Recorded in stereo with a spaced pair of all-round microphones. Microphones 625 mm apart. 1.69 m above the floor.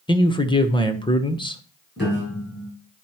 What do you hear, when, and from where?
0.1 s a man speaking: 10° left (ahead or behind), 0.9 m
2.0 s a piano: 15° left (ahead or behind), 5.5 m